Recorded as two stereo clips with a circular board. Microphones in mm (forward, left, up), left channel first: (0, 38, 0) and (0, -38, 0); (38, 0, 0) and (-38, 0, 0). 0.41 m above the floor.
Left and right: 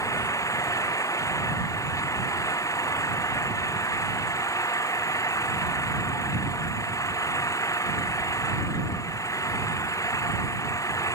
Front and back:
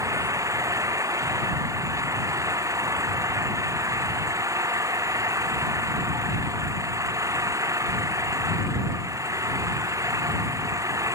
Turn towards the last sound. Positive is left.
turn(degrees=135)